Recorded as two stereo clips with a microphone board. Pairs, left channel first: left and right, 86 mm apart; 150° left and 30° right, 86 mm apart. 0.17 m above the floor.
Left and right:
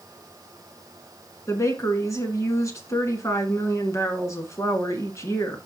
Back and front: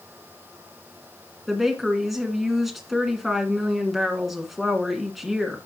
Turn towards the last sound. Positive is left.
turn(degrees=60)